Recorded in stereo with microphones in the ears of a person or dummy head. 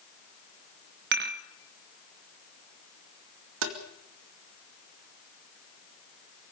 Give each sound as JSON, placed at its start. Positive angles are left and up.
{"t": 1.1, "sound": "dishes clattering", "side_deg": -55, "distance_m": 1.5}
{"t": 3.6, "sound": "tapping", "side_deg": -75, "distance_m": 2.5}